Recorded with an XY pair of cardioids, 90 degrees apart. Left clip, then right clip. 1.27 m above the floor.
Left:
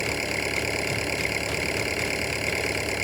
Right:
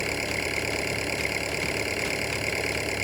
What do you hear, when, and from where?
0.0 s an engine running: 5° left